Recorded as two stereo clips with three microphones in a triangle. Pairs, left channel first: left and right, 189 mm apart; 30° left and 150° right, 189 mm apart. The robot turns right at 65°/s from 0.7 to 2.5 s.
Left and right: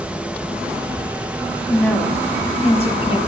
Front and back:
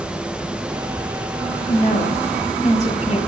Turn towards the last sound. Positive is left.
turn(degrees=55)